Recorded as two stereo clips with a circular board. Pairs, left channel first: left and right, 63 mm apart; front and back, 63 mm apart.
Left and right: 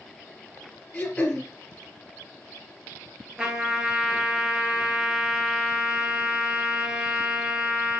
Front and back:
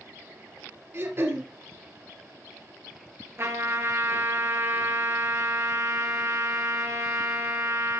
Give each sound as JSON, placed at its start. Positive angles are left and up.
{"t": 0.9, "sound": "throat clearing", "azimuth_deg": 155, "distance_m": 2.0}
{"t": 3.4, "sound": "a trumpet", "azimuth_deg": -160, "distance_m": 2.5}